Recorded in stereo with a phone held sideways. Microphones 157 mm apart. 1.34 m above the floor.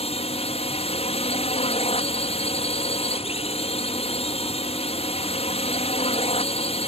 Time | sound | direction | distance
0.0 | a drone | 45° left (ahead or behind) | ?